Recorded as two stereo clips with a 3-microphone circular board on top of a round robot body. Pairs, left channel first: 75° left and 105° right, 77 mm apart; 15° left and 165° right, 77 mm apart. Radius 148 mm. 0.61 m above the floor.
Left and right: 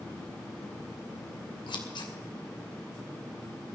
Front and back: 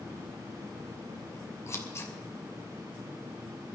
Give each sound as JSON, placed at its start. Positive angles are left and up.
{"t": 1.7, "sound": "scissors", "azimuth_deg": 65, "distance_m": 2.5}